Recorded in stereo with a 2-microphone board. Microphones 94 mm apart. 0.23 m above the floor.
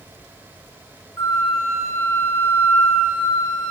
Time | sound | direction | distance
1.2 | a flute | 30° left (ahead or behind) | 2.5 m